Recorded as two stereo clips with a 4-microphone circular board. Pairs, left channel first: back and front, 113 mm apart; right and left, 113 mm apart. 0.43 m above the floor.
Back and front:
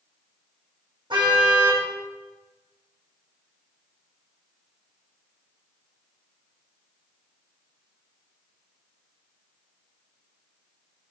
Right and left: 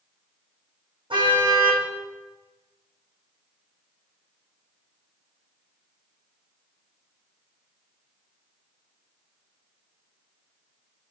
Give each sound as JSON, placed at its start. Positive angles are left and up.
{"t": 1.1, "sound": "a car horn", "azimuth_deg": 45, "distance_m": 10.0}